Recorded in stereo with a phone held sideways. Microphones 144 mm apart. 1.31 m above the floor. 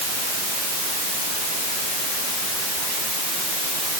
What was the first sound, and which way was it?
Only background noise.